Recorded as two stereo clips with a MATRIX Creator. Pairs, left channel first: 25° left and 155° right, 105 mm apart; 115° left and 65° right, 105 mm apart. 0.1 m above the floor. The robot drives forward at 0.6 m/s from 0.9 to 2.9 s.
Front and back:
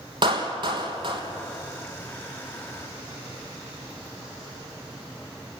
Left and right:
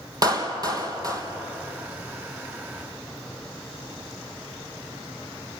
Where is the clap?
120° right, 2.5 m.